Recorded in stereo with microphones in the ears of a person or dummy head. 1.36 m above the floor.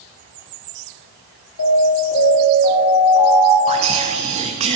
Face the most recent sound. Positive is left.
turn(degrees=-30)  # may be behind; listen again after turning